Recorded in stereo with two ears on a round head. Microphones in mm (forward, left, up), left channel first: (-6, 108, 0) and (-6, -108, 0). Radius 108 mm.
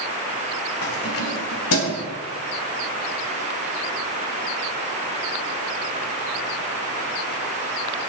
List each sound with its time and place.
0.8 s keys jangling: 60° left (ahead or behind), 2.5 m; by 2.0 s 70° left (ahead or behind), 3 m